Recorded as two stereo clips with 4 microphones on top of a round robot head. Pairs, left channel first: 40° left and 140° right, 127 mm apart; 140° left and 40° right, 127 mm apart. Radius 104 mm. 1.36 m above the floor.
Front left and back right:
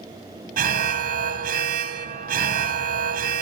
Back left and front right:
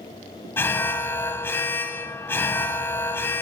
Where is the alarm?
145° right, 0.8 m.